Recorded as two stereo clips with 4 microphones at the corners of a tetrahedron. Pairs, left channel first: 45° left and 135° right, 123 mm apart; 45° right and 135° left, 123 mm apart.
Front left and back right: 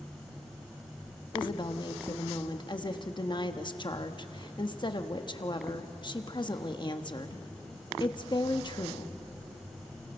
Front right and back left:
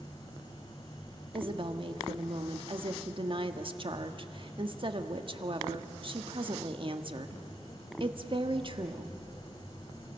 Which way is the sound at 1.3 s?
95° left.